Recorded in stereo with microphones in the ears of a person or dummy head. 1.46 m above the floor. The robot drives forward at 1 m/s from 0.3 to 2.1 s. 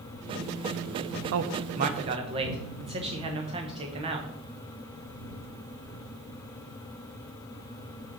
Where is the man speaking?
65° right (ahead or behind), 0.6 m; by 4.3 s 30° right (ahead or behind), 1.0 m.